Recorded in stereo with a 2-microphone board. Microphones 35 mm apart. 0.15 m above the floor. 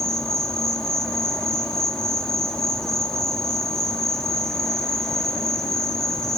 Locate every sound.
0.0 s an insect: 20° left (ahead or behind), 1.7 m